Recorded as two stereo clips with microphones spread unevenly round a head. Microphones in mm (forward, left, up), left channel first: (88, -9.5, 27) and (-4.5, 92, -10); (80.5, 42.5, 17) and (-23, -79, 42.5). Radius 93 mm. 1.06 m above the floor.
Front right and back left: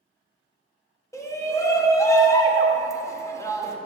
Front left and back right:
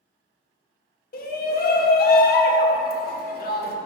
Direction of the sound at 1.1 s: 25° left.